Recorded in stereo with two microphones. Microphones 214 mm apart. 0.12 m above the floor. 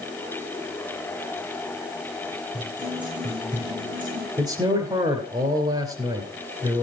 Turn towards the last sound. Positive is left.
turn(degrees=-20)  # may be behind; listen again after turning